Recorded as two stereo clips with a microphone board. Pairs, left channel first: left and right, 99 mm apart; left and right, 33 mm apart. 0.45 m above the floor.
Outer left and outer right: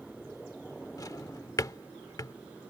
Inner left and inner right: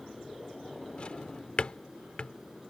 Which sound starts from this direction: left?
A drawer, at 1.0 s.